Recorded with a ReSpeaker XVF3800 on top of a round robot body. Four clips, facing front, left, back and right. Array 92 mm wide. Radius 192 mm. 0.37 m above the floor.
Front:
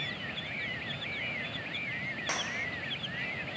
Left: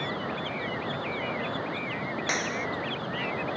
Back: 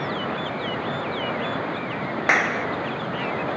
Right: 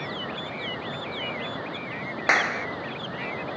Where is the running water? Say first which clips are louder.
Left 1 dB, back 13 dB; 175° left.